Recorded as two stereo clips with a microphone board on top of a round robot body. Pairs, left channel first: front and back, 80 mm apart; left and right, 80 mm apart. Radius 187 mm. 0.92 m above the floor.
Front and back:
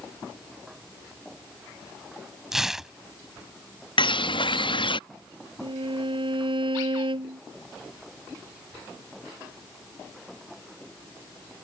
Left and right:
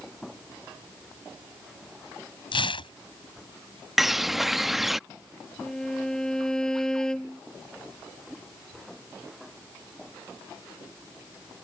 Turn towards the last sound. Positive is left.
turn(degrees=170)